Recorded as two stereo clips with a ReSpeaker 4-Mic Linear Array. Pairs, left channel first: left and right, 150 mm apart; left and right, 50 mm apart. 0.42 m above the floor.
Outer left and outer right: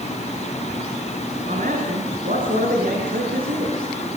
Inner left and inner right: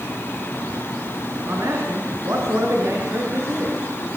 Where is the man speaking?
65° right (ahead or behind), 6 m; by 3.8 s 75° right (ahead or behind), 5.5 m.